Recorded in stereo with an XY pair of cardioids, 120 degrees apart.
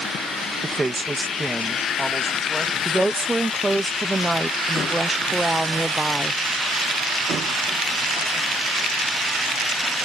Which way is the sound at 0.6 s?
20° right.